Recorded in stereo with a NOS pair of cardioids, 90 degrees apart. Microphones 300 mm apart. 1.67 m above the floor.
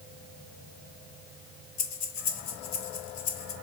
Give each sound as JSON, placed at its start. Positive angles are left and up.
{"t": 1.8, "sound": "breathing", "azimuth_deg": 65, "distance_m": 1.6}